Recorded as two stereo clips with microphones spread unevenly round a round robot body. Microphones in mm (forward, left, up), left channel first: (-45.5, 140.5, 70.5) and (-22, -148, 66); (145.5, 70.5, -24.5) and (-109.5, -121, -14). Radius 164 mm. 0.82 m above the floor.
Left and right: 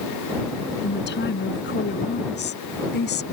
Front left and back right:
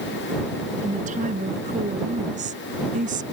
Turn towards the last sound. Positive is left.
turn(degrees=150)